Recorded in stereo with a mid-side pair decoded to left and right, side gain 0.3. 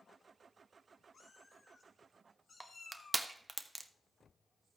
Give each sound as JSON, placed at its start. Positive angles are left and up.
{"t": 1.1, "sound": "a cat meowing", "azimuth_deg": 60, "distance_m": 3.5}
{"t": 2.6, "sound": "crushing", "azimuth_deg": -25, "distance_m": 1.2}